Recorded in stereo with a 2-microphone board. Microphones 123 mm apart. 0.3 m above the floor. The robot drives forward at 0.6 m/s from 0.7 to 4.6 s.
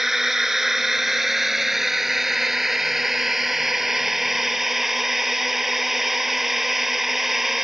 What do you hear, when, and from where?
0.0 s a drone: centre (ahead or behind)